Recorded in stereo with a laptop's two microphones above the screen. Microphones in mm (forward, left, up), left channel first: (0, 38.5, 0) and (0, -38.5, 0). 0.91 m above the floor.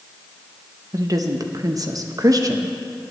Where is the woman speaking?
50° right (ahead or behind), 0.8 m.